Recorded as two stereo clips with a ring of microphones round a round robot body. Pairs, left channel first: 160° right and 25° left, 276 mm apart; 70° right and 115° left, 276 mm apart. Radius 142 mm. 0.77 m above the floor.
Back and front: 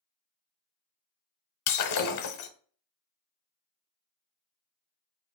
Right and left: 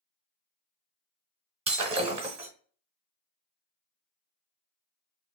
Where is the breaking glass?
Straight behind, 0.9 m.